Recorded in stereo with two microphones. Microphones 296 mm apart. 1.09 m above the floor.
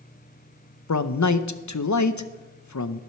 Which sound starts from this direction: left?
A man speaking, at 0.9 s.